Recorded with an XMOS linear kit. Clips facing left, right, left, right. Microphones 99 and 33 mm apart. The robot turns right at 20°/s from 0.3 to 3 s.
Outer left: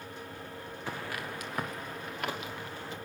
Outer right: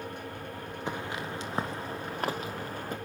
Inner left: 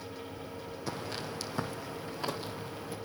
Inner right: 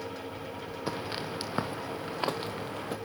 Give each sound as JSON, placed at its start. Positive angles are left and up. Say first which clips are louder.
{"t": 0.9, "sound": "footsteps", "louder": "outer right 3 dB, inner right 3 dB", "side_deg": -20, "distance_m": 3.5}